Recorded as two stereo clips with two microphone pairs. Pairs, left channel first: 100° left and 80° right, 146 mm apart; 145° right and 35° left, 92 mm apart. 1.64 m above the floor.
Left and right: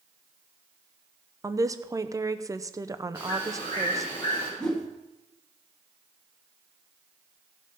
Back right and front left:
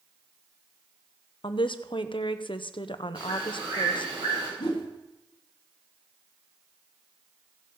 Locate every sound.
1.4 s a woman speaking: 145° right, 0.6 m
3.1 s a bird: 50° left, 6.5 m
4.6 s a whoosh: 175° right, 1.5 m